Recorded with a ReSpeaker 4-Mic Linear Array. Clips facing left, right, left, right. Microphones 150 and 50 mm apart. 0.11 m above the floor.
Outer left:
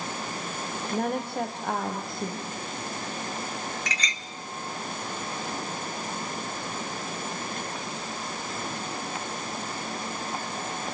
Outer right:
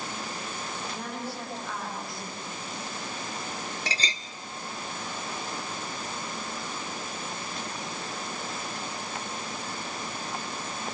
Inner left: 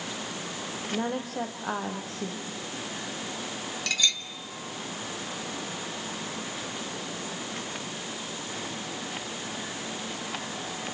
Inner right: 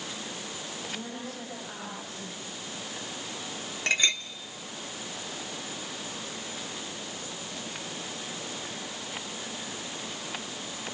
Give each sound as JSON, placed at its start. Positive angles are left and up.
{"t": 0.9, "sound": "a woman speaking", "side_deg": 50, "distance_m": 4.5}
{"t": 3.9, "sound": "a clink", "side_deg": -30, "distance_m": 1.1}